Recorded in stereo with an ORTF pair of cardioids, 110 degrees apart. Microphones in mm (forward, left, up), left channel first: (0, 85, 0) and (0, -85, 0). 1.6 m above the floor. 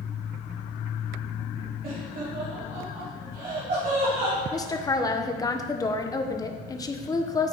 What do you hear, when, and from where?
1.8 s laughter: 55° right, 3 m
4.5 s a woman speaking: 20° left, 1.1 m